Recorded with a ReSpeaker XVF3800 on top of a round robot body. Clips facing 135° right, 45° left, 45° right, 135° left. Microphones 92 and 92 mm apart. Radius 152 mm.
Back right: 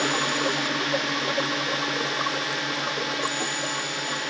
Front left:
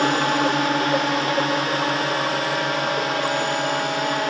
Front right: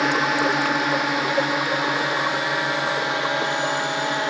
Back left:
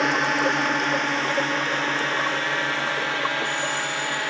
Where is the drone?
40° left; by 4.3 s 20° left.